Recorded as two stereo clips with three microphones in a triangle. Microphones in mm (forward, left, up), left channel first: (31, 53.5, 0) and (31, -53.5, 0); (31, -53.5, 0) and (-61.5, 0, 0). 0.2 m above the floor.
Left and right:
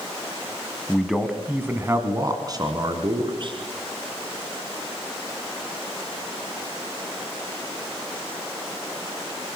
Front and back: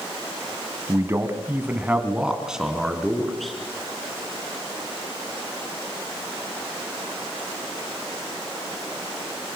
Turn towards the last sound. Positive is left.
turn(degrees=-120)